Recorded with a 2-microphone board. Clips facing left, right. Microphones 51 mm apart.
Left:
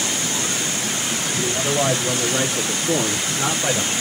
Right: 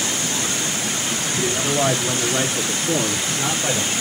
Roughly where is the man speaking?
Right.